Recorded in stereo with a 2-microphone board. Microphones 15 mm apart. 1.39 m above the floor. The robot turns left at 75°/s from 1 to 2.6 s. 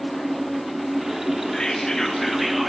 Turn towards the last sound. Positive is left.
turn(degrees=-10)